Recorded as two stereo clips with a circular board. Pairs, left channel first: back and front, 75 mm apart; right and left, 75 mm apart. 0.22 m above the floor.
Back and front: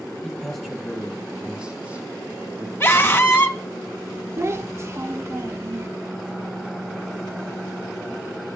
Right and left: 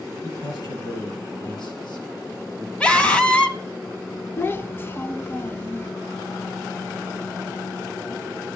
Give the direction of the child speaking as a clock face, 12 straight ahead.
1 o'clock.